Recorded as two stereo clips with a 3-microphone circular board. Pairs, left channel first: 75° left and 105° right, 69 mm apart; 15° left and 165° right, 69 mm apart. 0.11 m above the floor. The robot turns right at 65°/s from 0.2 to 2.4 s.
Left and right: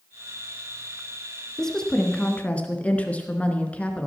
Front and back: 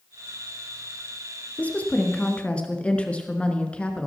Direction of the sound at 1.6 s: Straight ahead.